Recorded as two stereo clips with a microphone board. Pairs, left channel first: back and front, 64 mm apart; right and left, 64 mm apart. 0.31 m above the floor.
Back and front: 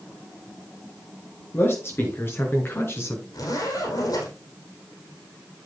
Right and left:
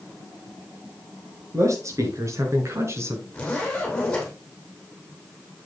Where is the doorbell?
No doorbell in this recording.